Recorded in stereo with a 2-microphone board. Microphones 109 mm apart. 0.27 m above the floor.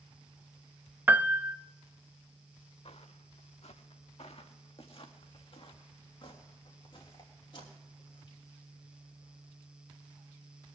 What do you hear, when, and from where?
1.1 s a piano: 15° right (ahead or behind), 0.5 m
2.9 s footsteps: 75° left (ahead or behind), 1.4 m; by 8.4 s 45° left (ahead or behind), 6.5 m